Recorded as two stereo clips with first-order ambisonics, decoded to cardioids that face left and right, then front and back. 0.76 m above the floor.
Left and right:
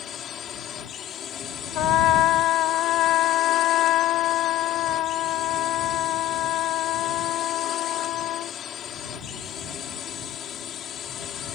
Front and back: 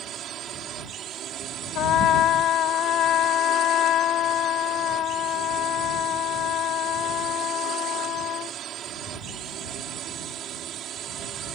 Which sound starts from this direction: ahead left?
A trumpet, at 1.8 s.